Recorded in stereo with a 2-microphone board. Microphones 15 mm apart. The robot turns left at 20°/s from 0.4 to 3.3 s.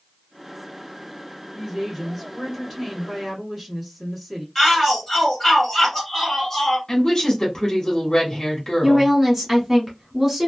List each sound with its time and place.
1.6 s a woman speaking: 15° left (ahead or behind), 1.6 m; by 4.5 s 5° left (ahead or behind), 1.6 m
4.5 s a shout: 20° left (ahead or behind), 1.5 m
6.9 s a woman speaking: 40° left (ahead or behind), 1.2 m
8.8 s a woman speaking: 15° right (ahead or behind), 1.3 m